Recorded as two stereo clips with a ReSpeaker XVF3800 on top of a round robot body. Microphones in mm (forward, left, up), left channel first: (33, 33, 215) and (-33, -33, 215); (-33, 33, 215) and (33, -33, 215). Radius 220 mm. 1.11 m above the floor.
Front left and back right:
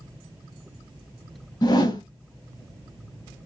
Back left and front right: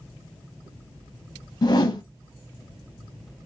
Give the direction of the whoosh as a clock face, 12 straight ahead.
9 o'clock.